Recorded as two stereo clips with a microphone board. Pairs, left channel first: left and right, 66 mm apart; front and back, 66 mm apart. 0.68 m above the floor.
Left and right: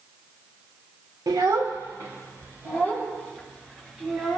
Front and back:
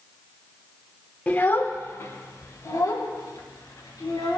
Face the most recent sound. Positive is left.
turn(degrees=-25)